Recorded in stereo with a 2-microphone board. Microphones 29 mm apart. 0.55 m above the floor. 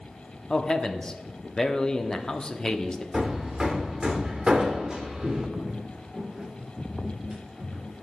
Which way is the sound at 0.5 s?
25° left (ahead or behind).